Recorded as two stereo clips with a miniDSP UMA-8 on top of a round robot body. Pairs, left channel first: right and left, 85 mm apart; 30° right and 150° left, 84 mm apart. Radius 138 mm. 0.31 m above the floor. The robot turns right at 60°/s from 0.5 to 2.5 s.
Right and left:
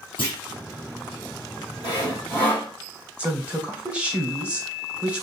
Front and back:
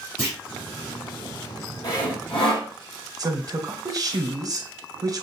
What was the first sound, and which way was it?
A clunk, 110° right.